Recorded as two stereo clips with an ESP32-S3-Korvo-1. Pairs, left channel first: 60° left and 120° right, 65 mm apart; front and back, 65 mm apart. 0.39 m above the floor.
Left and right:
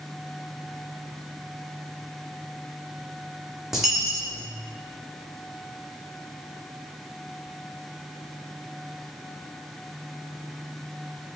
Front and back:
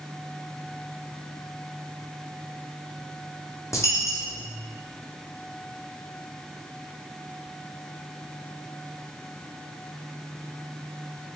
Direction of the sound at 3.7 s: 35° right.